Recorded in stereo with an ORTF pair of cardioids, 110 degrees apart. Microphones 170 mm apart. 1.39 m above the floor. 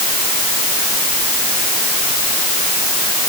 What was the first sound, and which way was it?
Only background noise.